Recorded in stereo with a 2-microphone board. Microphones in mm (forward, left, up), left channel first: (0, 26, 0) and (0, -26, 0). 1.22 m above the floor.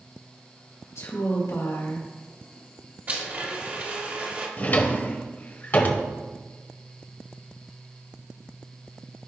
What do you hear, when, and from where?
0.9 s a woman speaking: 80° left, 4 m
3.1 s a blender: 40° right (ahead or behind), 1.8 m
4.6 s a drawer: 35° left (ahead or behind), 1.1 m